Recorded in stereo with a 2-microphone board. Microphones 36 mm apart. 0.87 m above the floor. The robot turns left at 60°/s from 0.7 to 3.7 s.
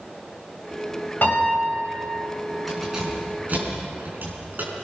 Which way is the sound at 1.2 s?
125° left.